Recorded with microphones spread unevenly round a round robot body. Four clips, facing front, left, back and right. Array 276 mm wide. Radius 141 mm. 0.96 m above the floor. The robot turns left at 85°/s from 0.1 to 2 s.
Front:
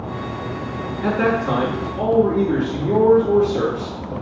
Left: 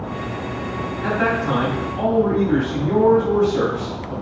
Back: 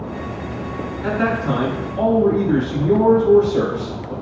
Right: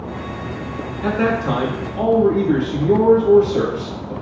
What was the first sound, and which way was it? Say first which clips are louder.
A man speaking: right 2 dB, front 1 dB; 40° right.